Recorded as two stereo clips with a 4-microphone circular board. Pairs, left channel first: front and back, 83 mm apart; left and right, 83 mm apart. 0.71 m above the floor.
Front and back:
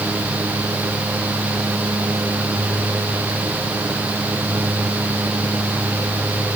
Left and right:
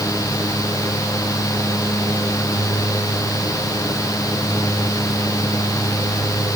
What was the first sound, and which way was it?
Only background noise.